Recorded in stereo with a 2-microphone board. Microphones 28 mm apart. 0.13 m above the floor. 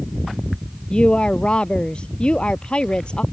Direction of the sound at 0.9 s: 40° left (ahead or behind).